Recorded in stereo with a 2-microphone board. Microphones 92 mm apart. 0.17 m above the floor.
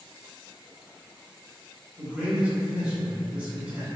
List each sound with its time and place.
2.0 s a man speaking: 15° right (ahead or behind), 1.9 m